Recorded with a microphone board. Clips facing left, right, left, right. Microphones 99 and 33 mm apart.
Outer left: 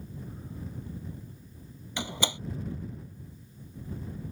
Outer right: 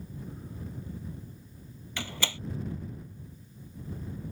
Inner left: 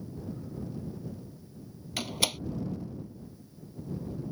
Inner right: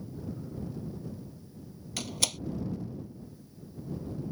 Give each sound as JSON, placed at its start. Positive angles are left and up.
{"t": 2.0, "sound": "a door slam", "side_deg": 15}